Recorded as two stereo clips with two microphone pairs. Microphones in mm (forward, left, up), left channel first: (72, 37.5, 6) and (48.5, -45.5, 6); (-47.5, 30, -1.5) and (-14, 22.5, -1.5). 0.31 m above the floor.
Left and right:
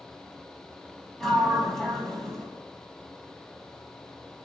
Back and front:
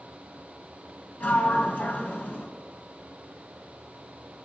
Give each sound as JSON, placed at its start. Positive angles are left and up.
{"t": 1.2, "sound": "a sliding door", "azimuth_deg": 160, "distance_m": 2.5}